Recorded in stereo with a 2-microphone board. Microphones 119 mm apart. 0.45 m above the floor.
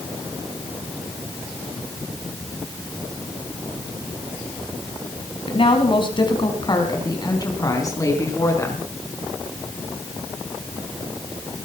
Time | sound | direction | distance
5.5 | a woman speaking | 50° left (ahead or behind) | 4 m